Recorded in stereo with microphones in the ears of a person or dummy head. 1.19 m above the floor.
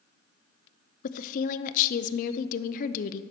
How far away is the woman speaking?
About 0.5 m.